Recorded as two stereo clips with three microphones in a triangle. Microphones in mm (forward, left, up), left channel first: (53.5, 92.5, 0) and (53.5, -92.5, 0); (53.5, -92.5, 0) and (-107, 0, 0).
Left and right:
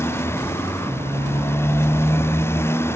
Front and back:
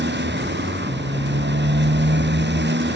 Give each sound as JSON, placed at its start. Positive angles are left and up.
{"t": 0.0, "sound": "a motorcycle", "azimuth_deg": 165}